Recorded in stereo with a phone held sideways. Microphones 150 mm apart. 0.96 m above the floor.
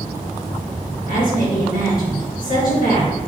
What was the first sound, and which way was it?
A woman speaking, 65° left (ahead or behind).